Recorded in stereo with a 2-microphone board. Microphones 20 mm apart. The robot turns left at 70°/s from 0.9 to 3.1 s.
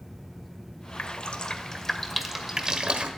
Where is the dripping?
80° left, 1.6 m; by 3.1 s 65° right (ahead or behind), 1.6 m.